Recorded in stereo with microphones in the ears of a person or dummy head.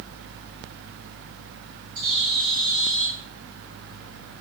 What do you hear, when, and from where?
1.9 s a bird: 75° right (ahead or behind), 1.8 m